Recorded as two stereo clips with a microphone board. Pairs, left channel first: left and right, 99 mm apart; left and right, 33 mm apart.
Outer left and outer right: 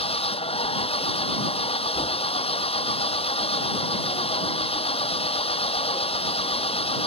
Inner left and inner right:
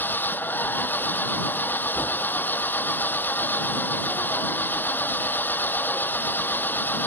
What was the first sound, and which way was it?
An engine running, 80° left.